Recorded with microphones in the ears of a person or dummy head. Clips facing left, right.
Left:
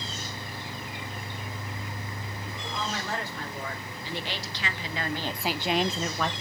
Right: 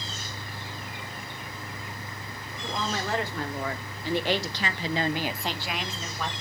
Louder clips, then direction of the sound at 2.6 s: Right 4 dB; 55° right (ahead or behind).